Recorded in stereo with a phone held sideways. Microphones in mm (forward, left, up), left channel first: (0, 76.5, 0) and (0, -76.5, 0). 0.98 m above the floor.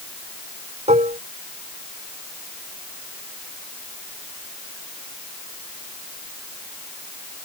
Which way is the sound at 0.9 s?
50° right (ahead or behind).